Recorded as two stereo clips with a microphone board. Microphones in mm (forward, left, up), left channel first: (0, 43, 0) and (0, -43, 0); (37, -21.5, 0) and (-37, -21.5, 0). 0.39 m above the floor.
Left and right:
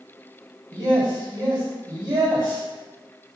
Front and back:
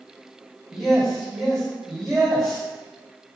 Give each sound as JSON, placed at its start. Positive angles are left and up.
{"t": 0.7, "sound": "a man speaking", "azimuth_deg": -90, "distance_m": 1.7}